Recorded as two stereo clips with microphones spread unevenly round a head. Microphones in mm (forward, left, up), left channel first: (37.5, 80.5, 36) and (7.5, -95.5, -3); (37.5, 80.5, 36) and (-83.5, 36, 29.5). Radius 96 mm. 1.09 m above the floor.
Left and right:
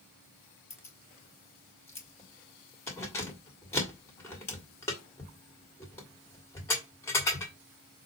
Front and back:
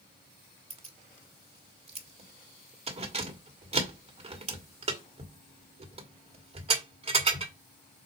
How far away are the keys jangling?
About 1.5 m.